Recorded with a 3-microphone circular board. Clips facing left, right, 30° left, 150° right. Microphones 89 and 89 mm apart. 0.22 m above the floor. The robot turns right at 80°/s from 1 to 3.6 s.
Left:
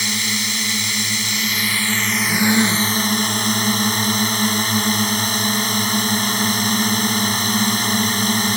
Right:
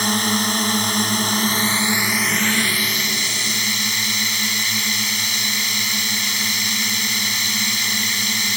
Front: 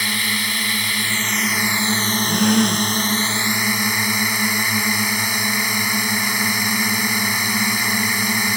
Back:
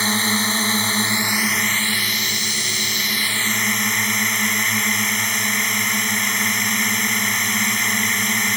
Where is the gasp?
5° left; by 2.9 s 55° left.